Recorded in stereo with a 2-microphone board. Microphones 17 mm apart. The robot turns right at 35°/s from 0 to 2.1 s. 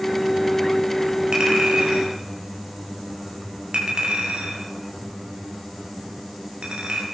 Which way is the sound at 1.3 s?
60° right (ahead or behind).